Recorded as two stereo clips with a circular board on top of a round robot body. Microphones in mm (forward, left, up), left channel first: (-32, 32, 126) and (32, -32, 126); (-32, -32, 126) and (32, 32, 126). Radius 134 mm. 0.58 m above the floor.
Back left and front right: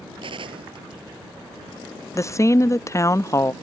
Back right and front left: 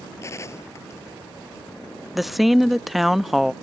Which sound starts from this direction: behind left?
A woman speaking, at 2.1 s.